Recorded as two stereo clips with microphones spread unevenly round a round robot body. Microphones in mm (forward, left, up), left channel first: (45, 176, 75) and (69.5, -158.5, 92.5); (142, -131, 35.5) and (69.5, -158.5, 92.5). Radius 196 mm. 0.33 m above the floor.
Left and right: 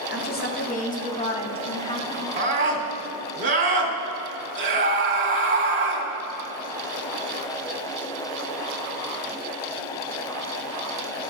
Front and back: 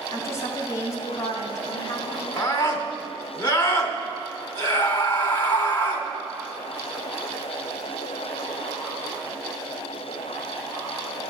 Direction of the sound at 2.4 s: 20° right.